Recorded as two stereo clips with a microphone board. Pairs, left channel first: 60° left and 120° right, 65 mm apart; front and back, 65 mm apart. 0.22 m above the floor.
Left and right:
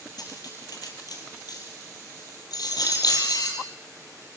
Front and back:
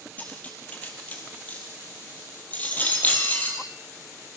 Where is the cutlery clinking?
65° left, 4 m.